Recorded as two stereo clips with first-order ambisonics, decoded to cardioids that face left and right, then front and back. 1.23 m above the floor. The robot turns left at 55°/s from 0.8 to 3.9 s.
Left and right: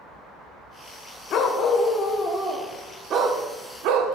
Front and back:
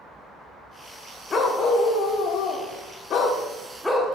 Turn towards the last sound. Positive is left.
turn(degrees=-85)